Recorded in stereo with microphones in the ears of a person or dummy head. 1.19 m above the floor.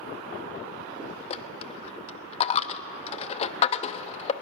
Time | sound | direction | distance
1.3 | a dropped coin | 40° left (ahead or behind) | 0.7 m